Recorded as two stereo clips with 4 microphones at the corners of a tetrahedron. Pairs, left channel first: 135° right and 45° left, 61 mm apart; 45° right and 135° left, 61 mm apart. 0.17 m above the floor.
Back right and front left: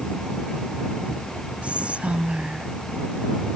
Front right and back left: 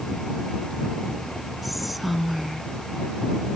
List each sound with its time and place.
1.6 s whispering: 50° left